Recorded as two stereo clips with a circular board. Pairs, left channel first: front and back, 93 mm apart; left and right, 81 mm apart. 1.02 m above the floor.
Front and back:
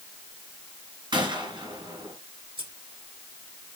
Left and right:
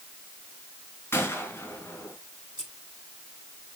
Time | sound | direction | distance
1.1 | a gunshot | 150° left | 3 m
2.6 | scissors | 175° right | 6 m